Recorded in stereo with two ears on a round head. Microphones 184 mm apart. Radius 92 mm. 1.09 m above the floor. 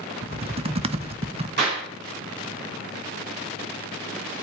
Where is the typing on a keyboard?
30° right (ahead or behind), 0.5 m.